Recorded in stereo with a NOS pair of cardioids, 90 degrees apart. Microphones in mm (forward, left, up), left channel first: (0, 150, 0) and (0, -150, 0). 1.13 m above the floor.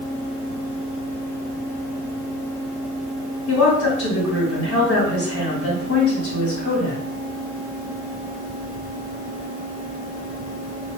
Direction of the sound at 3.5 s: 70° left.